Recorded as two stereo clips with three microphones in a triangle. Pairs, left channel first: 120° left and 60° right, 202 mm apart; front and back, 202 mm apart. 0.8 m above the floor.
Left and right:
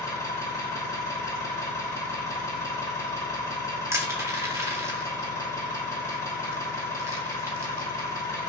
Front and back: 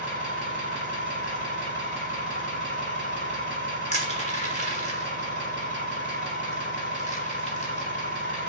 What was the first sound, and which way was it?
An engine running, 165° right.